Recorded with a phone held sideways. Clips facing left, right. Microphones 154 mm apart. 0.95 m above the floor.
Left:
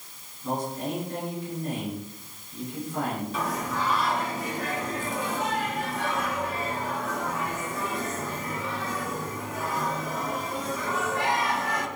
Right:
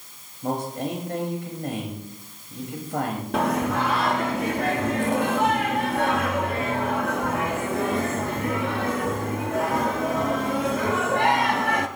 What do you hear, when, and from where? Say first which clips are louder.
0.4 s a man speaking: right 3 dB; 75° right (ahead or behind), 5.5 m
3.3 s singing: right 7 dB; 70° right (ahead or behind), 1.0 m